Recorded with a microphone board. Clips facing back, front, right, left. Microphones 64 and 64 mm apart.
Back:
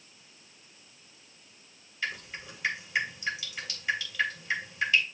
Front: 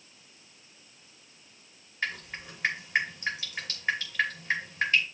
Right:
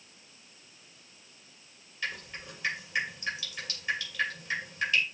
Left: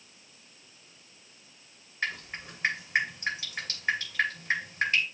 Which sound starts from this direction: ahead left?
Dripping, at 2.0 s.